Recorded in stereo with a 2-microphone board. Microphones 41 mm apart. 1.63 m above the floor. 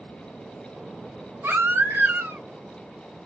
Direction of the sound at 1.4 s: 65° right (ahead or behind).